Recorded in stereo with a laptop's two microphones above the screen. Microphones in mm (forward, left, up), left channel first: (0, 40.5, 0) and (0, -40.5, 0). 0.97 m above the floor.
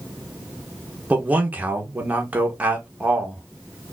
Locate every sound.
1.1 s a man speaking: 20° right (ahead or behind), 1.0 m